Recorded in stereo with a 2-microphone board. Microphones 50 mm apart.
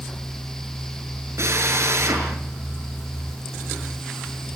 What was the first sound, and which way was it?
A drill, 60° right (ahead or behind).